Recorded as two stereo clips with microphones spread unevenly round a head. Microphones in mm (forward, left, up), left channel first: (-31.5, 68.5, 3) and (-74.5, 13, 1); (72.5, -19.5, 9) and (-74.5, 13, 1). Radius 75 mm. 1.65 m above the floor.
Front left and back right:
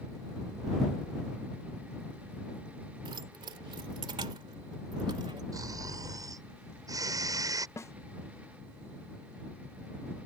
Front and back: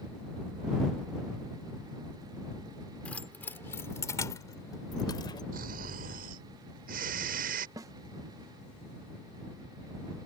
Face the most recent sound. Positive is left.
turn(degrees=100)